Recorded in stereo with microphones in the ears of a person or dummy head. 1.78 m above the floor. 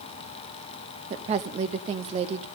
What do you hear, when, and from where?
1.1 s a woman speaking: 35° right (ahead or behind), 0.6 m